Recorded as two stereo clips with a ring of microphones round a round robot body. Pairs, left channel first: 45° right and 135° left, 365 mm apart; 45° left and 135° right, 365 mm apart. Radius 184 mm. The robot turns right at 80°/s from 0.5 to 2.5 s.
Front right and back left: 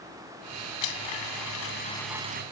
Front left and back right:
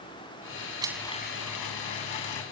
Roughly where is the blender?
Ahead right.